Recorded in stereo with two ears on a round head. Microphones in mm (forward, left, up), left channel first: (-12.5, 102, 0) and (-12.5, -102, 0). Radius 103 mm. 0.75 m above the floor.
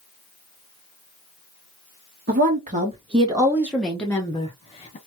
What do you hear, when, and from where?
2.3 s a woman speaking: 40° right (ahead or behind), 1.3 m; by 5.0 s 30° left (ahead or behind), 1.2 m